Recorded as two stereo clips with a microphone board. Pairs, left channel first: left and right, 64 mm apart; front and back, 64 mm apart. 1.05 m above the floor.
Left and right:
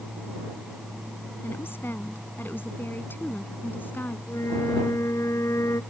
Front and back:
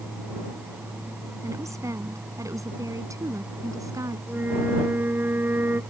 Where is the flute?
125° left.